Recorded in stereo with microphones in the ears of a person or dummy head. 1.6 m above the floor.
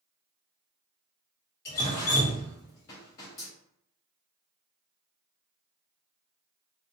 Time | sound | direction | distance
1.6 | dripping | 15° left (ahead or behind) | 0.5 m